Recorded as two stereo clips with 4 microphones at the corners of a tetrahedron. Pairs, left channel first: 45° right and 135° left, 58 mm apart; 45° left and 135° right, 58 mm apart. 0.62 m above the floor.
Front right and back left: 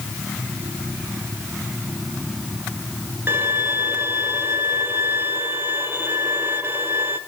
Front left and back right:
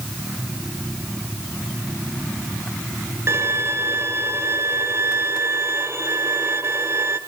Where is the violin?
175° right, 1.4 m.